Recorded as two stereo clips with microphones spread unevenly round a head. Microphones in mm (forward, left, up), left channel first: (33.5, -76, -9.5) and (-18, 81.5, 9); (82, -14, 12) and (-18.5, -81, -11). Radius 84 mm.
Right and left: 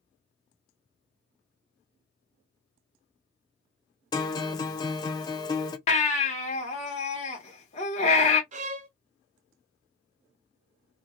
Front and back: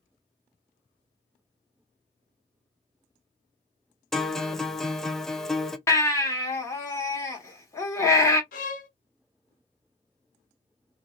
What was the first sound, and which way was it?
A guitar, 70° right.